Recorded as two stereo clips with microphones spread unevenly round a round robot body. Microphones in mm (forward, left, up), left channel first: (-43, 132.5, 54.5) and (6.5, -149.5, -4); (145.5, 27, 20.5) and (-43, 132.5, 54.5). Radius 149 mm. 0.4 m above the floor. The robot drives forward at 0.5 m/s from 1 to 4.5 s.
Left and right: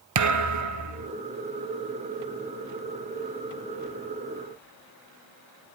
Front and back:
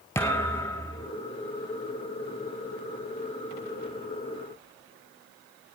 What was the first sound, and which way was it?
A thud, 110° right.